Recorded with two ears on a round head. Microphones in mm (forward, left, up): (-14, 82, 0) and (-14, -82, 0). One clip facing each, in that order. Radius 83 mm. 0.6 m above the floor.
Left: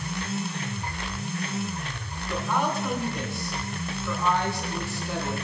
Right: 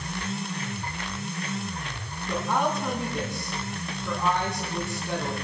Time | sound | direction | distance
2.3 | a woman speaking | 25° right (ahead or behind) | 5.5 m